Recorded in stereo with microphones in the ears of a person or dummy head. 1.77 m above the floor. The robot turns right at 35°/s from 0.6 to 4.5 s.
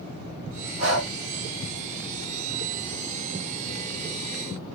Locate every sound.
0.8 s breathing: 65° right (ahead or behind), 1.6 m